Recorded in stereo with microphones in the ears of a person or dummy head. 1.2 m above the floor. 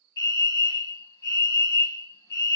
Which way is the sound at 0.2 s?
10° left (ahead or behind).